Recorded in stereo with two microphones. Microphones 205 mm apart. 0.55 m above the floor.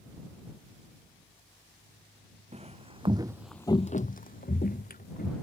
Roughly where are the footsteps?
Right.